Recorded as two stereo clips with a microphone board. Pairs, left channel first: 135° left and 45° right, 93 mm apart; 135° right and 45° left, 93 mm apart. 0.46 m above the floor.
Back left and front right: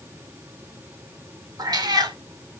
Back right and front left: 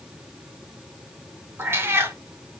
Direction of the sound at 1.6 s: 15° right.